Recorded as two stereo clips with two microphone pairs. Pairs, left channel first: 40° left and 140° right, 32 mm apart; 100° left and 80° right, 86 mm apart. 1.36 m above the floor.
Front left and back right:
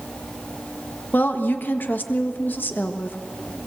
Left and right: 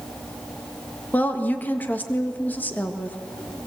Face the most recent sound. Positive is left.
turn(degrees=30)